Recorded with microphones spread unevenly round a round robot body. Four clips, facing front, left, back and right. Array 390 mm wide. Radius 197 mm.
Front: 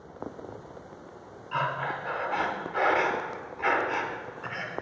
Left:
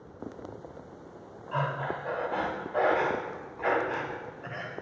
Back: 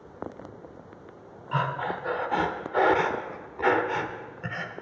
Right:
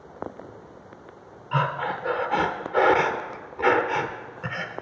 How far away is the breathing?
About 0.8 m.